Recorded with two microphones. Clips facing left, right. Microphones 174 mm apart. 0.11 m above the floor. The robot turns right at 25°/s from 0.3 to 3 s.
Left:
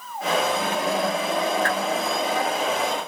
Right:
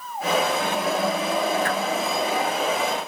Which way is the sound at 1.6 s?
15° right (ahead or behind).